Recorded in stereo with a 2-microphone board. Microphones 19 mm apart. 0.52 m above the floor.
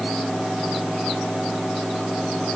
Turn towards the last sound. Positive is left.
No sound to turn to.